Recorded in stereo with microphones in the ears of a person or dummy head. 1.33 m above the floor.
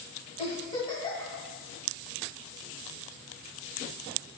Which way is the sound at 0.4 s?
30° left (ahead or behind).